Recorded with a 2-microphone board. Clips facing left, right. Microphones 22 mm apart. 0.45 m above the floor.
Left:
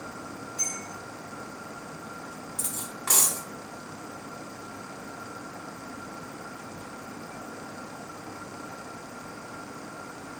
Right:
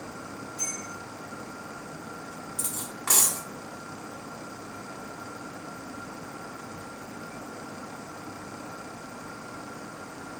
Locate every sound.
0.6 s a bell: 75° left (ahead or behind), 3 m
2.6 s cutlery clinking: 5° right (ahead or behind), 0.6 m